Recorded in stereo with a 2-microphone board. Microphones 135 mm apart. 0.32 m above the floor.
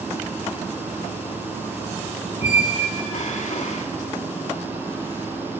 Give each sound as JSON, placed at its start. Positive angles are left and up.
{"t": 2.4, "sound": "a squeak", "side_deg": 60, "distance_m": 0.7}